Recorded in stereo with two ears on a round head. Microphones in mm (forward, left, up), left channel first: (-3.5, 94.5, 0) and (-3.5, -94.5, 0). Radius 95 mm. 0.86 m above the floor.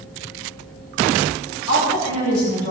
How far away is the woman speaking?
About 5 m.